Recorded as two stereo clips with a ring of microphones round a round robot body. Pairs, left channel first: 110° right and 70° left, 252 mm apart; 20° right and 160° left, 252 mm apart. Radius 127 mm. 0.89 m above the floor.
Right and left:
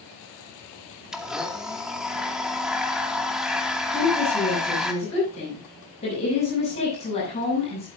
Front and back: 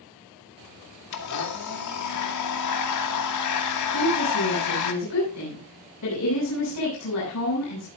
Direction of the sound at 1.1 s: 20° right.